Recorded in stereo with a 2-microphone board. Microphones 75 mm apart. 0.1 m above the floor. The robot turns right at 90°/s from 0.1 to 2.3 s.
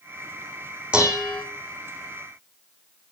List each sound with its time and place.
0.9 s dishes clattering: 15° right, 4.5 m; by 1.4 s 30° left, 4.5 m